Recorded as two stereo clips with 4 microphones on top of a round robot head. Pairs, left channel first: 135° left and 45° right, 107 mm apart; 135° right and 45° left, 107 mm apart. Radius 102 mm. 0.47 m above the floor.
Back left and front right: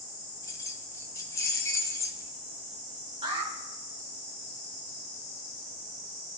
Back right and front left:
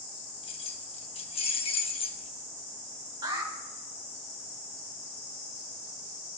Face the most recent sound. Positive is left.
turn(degrees=-5)